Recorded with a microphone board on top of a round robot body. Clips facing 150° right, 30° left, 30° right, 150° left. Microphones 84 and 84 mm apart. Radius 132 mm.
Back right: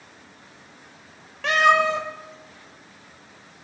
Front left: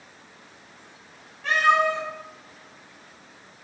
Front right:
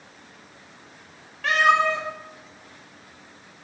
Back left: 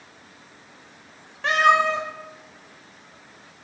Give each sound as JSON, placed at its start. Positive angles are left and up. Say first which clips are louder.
{"t": 1.4, "sound": "a cat meowing", "louder": "back right 2 dB, back left 1 dB", "azimuth_deg": -145, "distance_m": 0.9}